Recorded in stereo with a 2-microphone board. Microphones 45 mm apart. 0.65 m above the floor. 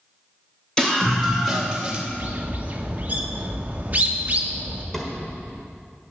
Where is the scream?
15° left (ahead or behind), 3 m; by 2.0 s 15° right (ahead or behind), 2.5 m.